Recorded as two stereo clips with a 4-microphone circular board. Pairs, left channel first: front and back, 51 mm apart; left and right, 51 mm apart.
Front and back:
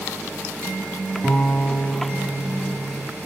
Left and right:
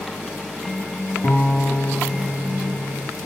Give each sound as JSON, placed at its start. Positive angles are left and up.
{"t": 1.2, "sound": "a guitar", "azimuth_deg": 90, "distance_m": 4.0}